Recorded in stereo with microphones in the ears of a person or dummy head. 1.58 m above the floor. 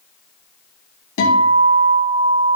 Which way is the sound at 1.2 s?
75° left (ahead or behind).